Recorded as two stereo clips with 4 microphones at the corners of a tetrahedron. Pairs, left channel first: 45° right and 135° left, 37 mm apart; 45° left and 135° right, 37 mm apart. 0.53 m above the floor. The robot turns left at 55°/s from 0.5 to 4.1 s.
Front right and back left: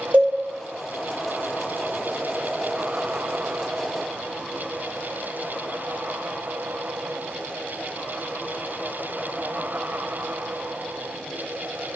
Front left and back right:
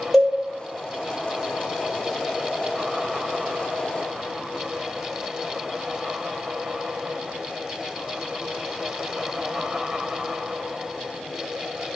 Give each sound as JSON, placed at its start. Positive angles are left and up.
{"t": 0.1, "sound": "a cowbell", "azimuth_deg": 135, "distance_m": 2.5}